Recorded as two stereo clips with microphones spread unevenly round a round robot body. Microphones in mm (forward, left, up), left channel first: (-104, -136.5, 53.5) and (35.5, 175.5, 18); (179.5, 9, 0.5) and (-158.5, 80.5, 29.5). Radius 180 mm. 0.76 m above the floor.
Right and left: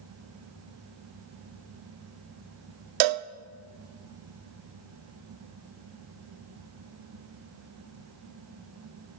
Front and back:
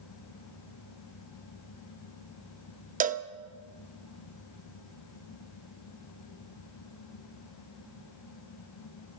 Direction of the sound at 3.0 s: 100° left.